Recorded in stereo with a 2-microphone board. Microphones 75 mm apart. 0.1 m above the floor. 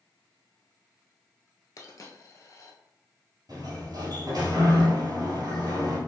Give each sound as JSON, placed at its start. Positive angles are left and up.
{"t": 1.8, "sound": "a dropped coin", "side_deg": 45, "distance_m": 0.9}
{"t": 3.5, "sound": "a sliding door", "side_deg": -55, "distance_m": 2.0}